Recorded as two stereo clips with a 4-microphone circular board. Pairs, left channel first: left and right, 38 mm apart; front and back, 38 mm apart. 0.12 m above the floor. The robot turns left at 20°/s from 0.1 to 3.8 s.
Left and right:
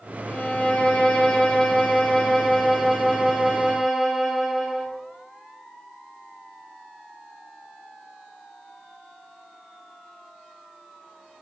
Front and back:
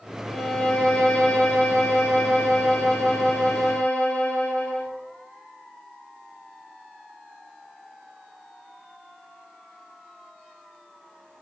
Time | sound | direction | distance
0.2 | a violin | 50° left | 0.8 m